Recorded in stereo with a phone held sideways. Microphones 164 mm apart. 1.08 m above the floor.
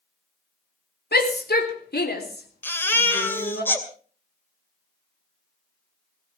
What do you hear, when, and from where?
1.1 s a shout: 75° left (ahead or behind), 3 m; by 3.6 s 85° left, 5.5 m
2.6 s a baby crying: 15° left (ahead or behind), 2.5 m